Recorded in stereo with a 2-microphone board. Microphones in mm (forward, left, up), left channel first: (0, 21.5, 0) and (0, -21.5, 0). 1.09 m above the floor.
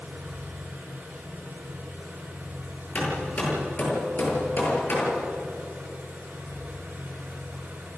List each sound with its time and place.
0.0 s an engine running: 55° right (ahead or behind), 9 m
3.0 s hammering: 40° left (ahead or behind), 8.5 m